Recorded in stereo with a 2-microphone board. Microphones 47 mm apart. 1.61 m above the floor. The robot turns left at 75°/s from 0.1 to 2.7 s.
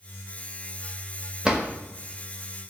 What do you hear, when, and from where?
1.4 s a drawer: 15° right (ahead or behind), 0.9 m; by 1.7 s 20° right (ahead or behind), 0.9 m